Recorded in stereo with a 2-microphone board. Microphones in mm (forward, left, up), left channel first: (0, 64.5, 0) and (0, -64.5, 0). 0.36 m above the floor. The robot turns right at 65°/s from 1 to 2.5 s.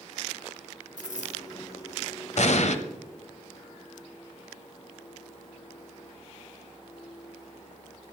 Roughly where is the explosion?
Left.